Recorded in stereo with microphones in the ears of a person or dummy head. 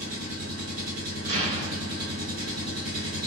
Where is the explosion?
45° right (ahead or behind), 1.5 m.